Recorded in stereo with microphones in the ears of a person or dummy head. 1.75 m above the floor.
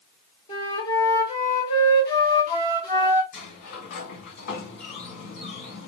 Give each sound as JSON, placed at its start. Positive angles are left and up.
{"t": 0.5, "sound": "a flute", "side_deg": 25, "distance_m": 2.0}
{"t": 3.3, "sound": "a sliding door", "side_deg": 60, "distance_m": 1.3}